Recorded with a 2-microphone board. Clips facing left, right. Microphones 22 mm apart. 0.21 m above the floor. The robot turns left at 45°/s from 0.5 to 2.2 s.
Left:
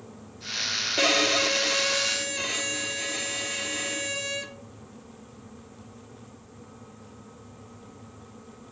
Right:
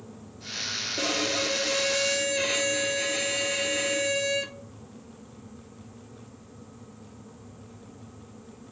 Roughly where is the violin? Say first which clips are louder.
Left 6 dB; ahead left.